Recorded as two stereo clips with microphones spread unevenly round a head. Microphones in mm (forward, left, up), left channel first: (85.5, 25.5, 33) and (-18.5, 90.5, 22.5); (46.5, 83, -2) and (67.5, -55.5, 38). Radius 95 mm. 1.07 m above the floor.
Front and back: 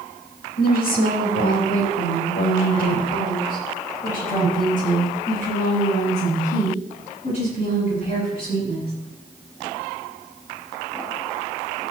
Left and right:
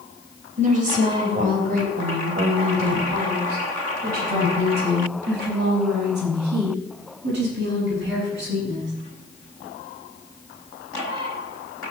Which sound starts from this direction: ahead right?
A woman speaking, at 0.6 s.